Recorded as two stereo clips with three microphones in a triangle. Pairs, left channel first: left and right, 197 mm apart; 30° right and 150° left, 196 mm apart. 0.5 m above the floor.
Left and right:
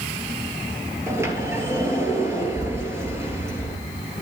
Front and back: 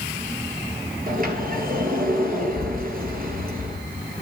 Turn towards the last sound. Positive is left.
turn(degrees=-165)